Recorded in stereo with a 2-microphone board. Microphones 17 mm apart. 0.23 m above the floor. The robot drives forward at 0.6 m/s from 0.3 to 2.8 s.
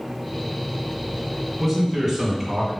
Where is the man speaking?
5° right (ahead or behind), 2.5 m.